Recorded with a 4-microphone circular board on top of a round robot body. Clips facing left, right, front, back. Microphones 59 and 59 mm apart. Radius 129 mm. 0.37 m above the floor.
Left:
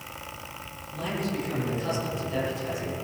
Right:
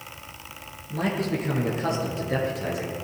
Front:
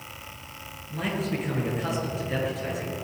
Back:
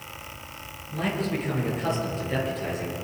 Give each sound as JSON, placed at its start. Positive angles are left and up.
{"t": 0.9, "sound": "a man speaking", "azimuth_deg": -85, "distance_m": 9.5}